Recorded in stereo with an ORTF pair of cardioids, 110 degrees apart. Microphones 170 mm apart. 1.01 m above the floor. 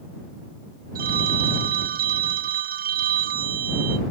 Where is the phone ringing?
60° right.